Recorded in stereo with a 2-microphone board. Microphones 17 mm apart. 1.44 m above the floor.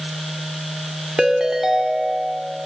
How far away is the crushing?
I don't hear crushing.